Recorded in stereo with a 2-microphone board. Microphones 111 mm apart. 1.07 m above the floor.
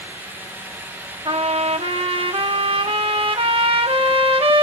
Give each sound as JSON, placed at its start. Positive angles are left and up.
{"t": 1.2, "sound": "a trumpet", "side_deg": -55, "distance_m": 1.3}